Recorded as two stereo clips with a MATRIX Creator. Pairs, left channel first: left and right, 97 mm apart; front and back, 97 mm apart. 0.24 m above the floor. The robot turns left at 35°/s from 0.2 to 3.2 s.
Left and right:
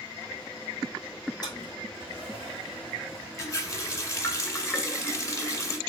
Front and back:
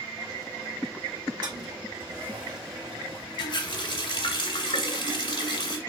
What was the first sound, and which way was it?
A toilet flushing, 140° left.